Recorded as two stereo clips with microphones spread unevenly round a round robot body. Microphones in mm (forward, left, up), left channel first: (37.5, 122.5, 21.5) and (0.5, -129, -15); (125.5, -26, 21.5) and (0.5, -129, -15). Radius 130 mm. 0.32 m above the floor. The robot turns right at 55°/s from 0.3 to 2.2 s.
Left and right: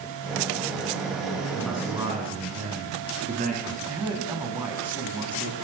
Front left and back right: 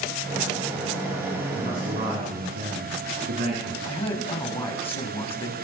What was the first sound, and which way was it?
A man speaking, 160° left.